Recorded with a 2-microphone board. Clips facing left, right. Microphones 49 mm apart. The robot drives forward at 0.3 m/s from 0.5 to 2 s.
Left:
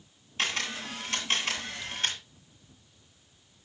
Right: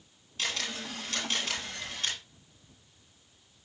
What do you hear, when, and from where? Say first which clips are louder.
0.4 s a camera shutter: left 3 dB; 35° left (ahead or behind), 9.5 m